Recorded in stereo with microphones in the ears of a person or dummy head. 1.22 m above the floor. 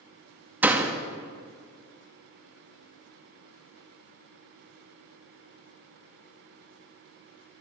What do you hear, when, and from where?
0.6 s a door slam: 10° right (ahead or behind), 1.0 m